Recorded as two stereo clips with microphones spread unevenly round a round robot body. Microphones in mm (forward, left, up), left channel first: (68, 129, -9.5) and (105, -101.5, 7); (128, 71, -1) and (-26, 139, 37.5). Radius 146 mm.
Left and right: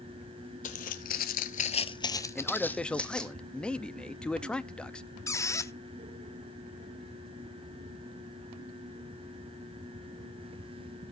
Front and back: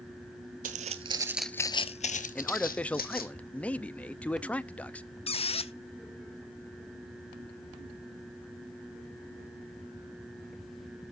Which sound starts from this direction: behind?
Footsteps, at 0.6 s.